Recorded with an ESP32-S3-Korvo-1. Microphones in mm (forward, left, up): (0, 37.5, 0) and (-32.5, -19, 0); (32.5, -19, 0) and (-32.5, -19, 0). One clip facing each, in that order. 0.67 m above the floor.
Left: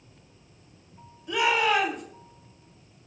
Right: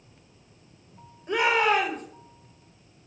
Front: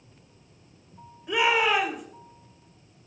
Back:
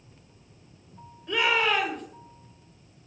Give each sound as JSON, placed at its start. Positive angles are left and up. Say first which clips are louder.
{"t": 1.3, "sound": "a shout", "louder": "right 1 dB, front 2 dB", "azimuth_deg": -80, "distance_m": 3.5}